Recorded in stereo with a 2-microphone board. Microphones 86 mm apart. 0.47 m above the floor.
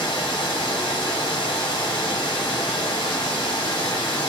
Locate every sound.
0.0 s running water: 75° left (ahead or behind), 1.3 m